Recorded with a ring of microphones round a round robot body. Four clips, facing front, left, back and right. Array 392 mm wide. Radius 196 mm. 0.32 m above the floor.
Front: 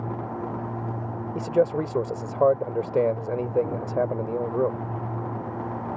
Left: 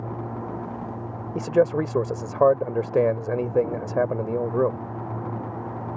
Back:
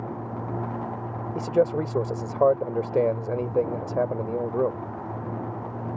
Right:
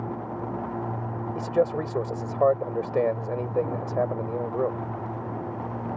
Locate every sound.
1.4 s a man speaking: 90° left